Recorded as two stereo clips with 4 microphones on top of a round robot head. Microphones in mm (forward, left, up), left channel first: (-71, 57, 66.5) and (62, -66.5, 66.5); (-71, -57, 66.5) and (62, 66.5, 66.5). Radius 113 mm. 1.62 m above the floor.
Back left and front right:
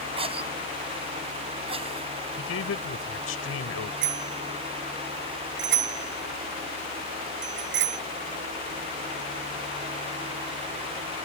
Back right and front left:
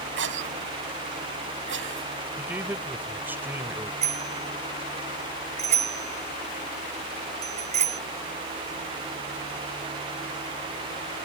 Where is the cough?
20° left.